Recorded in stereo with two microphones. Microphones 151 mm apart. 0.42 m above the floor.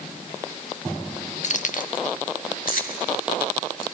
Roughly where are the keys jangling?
Left.